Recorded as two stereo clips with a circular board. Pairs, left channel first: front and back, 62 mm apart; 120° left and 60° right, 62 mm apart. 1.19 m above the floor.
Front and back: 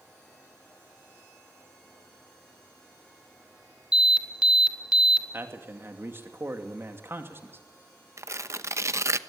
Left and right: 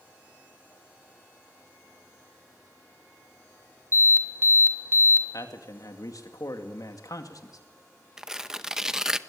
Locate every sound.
3.9 s an alarm: 105° right, 2.5 m
5.3 s a man speaking: 130° left, 2.5 m
8.2 s tearing paper: 140° right, 0.8 m